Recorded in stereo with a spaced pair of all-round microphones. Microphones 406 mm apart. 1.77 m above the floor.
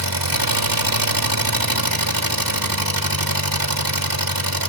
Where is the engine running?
55° right (ahead or behind), 2.5 m.